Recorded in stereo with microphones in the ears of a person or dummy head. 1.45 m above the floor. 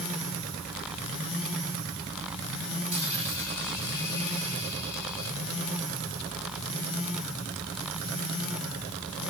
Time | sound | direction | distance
2.9 | a dropped coin | 40° right (ahead or behind) | 3.5 m